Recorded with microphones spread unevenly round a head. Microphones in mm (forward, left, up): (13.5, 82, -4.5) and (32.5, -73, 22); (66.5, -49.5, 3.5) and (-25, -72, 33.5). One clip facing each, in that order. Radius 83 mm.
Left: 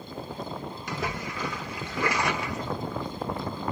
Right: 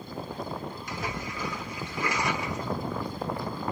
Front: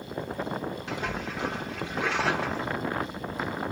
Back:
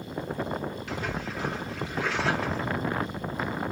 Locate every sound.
0.9 s a splash: 100° left, 0.8 m